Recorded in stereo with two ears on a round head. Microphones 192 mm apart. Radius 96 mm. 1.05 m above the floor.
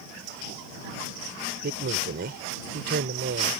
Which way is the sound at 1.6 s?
50° right (ahead or behind).